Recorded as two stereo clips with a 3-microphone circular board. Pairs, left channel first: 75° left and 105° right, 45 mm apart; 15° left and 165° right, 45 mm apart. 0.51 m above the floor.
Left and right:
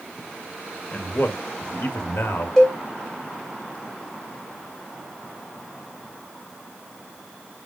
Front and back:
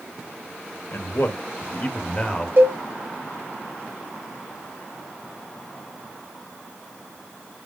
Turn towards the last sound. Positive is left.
turn(degrees=150)